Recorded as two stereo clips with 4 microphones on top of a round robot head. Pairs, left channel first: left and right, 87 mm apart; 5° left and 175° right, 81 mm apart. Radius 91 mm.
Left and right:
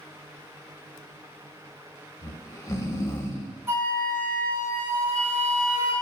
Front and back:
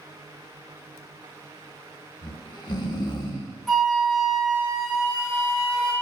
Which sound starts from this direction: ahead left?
Snoring, at 2.2 s.